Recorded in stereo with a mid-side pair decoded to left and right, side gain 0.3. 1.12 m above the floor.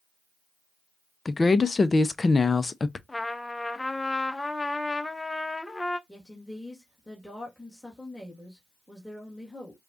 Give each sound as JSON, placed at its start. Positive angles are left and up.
{"t": 1.2, "sound": "a woman speaking", "azimuth_deg": 40, "distance_m": 0.6}
{"t": 3.1, "sound": "a trumpet", "azimuth_deg": 25, "distance_m": 0.6}
{"t": 6.1, "sound": "a woman speaking", "azimuth_deg": -5, "distance_m": 1.9}